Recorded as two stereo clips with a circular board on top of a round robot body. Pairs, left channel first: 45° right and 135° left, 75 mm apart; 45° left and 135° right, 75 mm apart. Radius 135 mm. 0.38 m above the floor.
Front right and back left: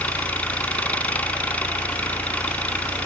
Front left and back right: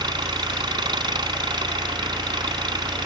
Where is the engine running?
120° right.